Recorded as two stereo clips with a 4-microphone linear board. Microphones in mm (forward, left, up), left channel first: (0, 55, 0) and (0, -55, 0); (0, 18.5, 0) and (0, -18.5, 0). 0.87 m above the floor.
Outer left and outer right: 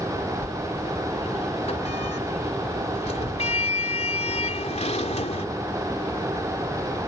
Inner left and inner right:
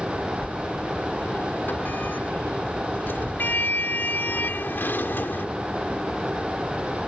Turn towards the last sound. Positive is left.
turn(degrees=70)  # may be behind; listen again after turning